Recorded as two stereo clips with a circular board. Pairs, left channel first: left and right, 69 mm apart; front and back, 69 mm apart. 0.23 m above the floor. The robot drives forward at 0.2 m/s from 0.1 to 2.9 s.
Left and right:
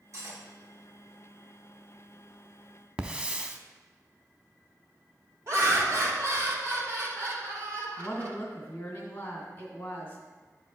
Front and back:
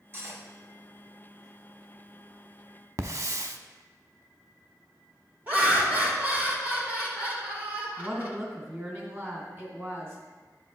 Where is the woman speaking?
135° left, 2 m.